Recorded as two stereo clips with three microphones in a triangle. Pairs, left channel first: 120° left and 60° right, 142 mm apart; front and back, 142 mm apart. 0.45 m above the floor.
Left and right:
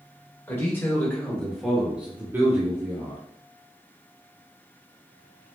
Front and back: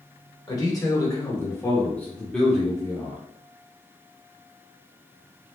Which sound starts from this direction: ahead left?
A man speaking, at 0.5 s.